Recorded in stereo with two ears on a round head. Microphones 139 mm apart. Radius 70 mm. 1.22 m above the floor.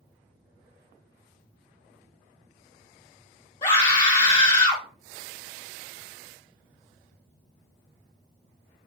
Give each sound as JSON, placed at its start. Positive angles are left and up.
{"t": 3.6, "sound": "a scream", "side_deg": 35, "distance_m": 1.7}